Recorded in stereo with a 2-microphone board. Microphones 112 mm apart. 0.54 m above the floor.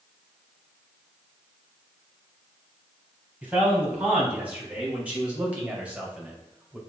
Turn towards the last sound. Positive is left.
turn(degrees=-10)  # may be behind; listen again after turning